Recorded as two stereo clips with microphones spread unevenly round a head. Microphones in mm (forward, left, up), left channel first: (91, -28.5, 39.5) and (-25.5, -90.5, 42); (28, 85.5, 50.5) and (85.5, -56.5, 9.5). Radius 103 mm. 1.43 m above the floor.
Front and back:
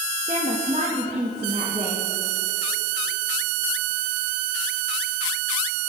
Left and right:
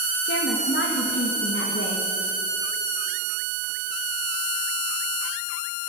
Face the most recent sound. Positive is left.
turn(degrees=145)